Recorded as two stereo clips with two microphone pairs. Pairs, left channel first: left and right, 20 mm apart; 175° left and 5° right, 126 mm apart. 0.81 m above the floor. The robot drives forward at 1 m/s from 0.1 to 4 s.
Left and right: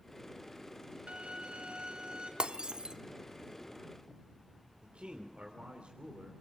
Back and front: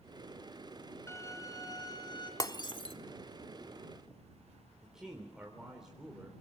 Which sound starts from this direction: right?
A man speaking, at 4.8 s.